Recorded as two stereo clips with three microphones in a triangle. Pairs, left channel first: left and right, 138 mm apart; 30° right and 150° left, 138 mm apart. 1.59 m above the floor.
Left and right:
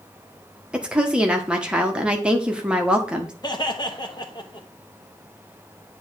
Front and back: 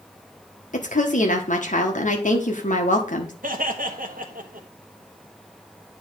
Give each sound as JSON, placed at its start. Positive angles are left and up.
{"t": 0.7, "sound": "a woman speaking", "azimuth_deg": -5, "distance_m": 1.4}
{"t": 3.4, "sound": "laughter", "azimuth_deg": 150, "distance_m": 1.2}